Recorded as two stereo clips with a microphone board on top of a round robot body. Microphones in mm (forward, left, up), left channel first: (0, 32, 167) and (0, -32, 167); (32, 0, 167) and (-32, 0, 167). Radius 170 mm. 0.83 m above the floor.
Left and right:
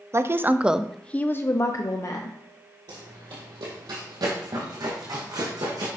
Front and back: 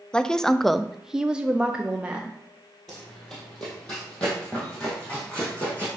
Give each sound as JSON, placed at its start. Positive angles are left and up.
{"t": 0.1, "sound": "a woman speaking", "azimuth_deg": -75, "distance_m": 0.7}
{"t": 2.9, "sound": "running footsteps", "azimuth_deg": -85, "distance_m": 1.4}